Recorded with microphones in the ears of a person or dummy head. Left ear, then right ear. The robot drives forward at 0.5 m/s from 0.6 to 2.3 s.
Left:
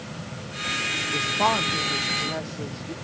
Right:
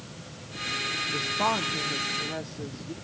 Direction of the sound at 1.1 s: 10° left (ahead or behind).